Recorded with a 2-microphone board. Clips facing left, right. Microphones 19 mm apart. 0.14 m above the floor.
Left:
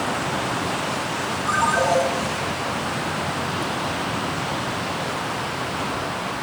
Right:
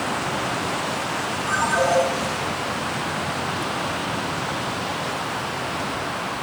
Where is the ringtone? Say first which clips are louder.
Left 1 dB; 5° right (ahead or behind), 3 m.